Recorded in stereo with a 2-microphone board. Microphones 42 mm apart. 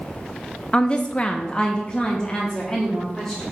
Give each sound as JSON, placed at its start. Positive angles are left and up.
{"t": 0.7, "sound": "a woman speaking", "side_deg": 25, "distance_m": 0.5}